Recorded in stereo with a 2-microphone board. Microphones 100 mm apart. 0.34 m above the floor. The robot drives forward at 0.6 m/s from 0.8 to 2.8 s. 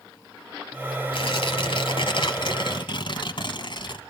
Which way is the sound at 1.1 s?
65° left (ahead or behind).